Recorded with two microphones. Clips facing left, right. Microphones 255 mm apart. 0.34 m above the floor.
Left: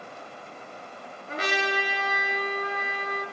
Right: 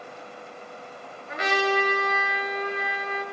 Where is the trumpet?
35° left (ahead or behind), 1.8 m.